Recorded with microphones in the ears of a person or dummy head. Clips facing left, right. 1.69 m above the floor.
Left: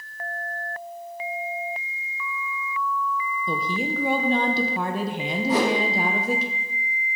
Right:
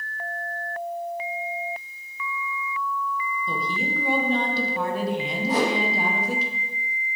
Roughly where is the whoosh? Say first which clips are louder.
Left 2 dB; left.